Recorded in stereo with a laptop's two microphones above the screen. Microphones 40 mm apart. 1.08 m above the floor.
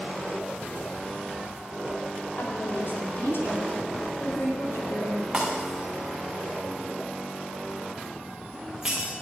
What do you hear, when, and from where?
2.4 s a woman speaking: 80° left, 4.5 m
5.3 s breaking glass: 20° right (ahead or behind), 5 m